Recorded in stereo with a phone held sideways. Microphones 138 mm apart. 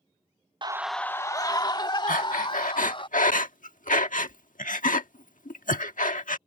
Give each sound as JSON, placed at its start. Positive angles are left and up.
{"t": 0.6, "sound": "a scream", "side_deg": -35}
{"t": 2.1, "sound": "breathing", "side_deg": 80}